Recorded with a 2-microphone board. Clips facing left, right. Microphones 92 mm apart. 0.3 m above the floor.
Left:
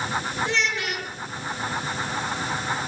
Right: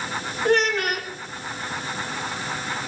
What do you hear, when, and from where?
0.5 s a child speaking: 55° right (ahead or behind), 3 m